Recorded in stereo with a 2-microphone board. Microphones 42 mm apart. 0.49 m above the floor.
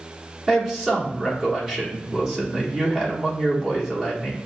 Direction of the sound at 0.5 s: 15° right (ahead or behind).